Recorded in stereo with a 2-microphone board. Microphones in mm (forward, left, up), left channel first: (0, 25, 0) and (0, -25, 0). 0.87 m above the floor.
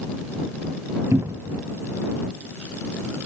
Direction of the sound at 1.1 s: 80° right.